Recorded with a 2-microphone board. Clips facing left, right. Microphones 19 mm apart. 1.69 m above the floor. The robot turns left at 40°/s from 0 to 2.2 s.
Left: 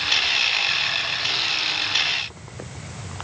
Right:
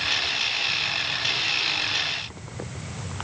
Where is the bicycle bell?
I don't hear a bicycle bell.